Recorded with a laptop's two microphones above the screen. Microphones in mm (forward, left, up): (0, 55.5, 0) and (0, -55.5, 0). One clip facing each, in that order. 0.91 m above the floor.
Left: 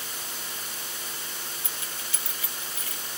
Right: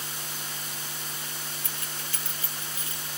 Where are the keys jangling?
60° right (ahead or behind); by 3.1 s 25° right (ahead or behind).